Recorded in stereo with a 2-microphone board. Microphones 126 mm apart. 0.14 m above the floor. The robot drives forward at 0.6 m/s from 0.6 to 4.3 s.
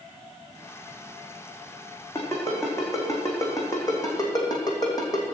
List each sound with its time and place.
2.1 s a ringtone: 20° left (ahead or behind), 4 m; by 5.2 s 30° left (ahead or behind), 3 m